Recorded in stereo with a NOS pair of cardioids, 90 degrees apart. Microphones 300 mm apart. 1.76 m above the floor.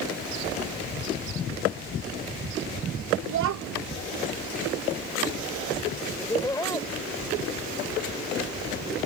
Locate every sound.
3.3 s a child speaking: 70° right
6.2 s laughter: 10° left